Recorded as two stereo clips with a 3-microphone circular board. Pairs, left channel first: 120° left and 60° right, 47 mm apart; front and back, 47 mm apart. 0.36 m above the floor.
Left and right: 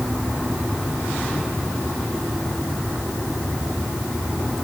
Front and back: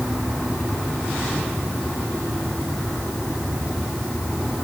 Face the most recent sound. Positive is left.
No sound to turn to.